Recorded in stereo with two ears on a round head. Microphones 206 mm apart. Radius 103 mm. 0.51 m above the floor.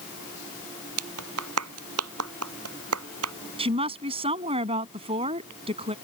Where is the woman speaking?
25° right (ahead or behind).